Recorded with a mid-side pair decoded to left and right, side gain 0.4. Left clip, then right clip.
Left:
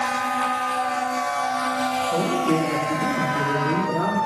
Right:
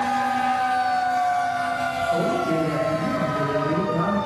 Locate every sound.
2.1 s a man speaking: 25° left, 3 m; by 4.2 s 20° left, 4 m